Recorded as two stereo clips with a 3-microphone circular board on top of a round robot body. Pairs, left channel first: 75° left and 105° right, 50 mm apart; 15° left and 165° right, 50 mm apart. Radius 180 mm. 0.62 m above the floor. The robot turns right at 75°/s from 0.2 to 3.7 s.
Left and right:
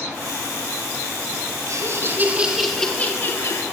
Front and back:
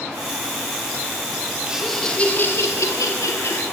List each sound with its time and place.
1.7 s laughter: 90° right, 1.9 m; by 3.6 s 55° left, 1.9 m